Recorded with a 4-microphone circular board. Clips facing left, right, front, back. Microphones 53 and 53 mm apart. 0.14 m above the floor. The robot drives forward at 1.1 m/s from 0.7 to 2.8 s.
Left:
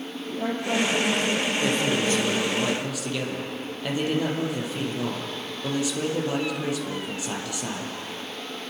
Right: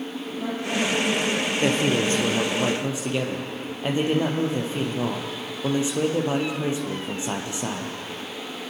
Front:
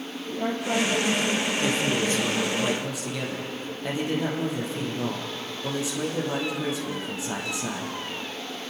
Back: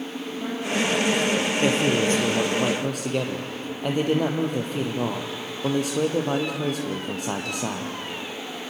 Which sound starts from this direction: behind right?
A man speaking, at 1.6 s.